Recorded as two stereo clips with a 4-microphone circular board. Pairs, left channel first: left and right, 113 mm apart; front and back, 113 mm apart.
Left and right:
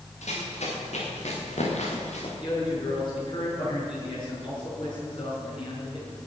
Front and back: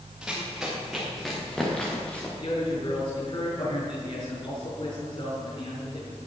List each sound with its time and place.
0.2 s running footsteps: 95° left, 5.5 m; by 2.3 s 80° left, 3.5 m
2.4 s a man speaking: 45° left, 7 m